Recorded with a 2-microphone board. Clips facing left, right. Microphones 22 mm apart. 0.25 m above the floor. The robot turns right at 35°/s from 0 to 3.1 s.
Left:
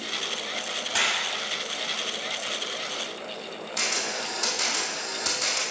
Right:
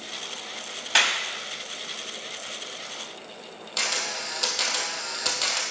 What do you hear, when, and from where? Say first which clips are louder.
0.9 s a clap: right 4 dB; 45° right (ahead or behind), 1.0 m
3.8 s a camera shutter: right 1 dB; 30° right (ahead or behind), 1.8 m